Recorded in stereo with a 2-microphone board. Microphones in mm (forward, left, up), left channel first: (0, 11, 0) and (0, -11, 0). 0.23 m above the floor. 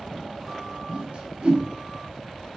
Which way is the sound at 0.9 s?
55° right (ahead or behind).